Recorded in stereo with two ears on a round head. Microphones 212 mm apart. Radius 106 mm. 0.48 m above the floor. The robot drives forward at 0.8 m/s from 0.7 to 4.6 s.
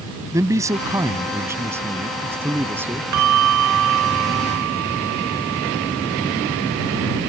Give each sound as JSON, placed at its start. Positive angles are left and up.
{"t": 0.3, "sound": "a man speaking", "side_deg": -15}
{"t": 3.1, "sound": "a bell", "side_deg": -85}